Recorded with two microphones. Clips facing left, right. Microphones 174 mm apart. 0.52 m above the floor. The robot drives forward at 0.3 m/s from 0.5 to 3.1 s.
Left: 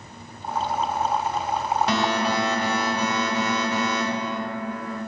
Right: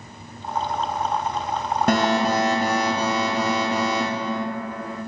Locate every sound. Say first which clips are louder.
1.9 s an alarm: right 8 dB; 50° right (ahead or behind), 0.5 m; by 5.0 s 35° right (ahead or behind), 0.7 m